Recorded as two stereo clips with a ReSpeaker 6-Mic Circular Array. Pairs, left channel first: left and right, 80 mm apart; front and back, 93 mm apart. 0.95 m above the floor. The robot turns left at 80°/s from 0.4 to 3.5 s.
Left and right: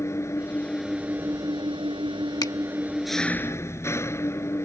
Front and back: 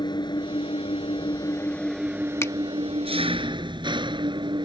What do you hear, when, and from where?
0.0 s an engine running: 35° left; by 4.7 s 150° left
2.4 s a finger snap: 60° left; by 2.5 s 50° left